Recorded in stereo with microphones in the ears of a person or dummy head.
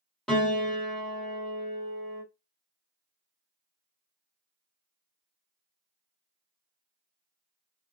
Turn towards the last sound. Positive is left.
turn(degrees=5)  # may be behind; listen again after turning